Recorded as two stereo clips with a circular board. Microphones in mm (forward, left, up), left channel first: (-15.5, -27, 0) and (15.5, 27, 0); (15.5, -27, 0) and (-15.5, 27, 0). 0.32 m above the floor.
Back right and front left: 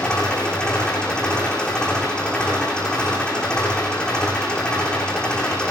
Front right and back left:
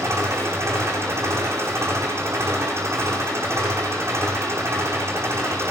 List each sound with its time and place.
0.0 s an engine running: 165° left, 8.5 m